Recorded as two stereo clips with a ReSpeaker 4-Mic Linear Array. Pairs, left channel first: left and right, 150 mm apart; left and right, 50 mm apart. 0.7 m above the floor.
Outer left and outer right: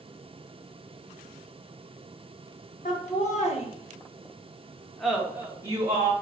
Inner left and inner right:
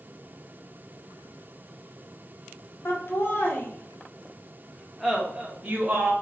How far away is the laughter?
About 1.4 m.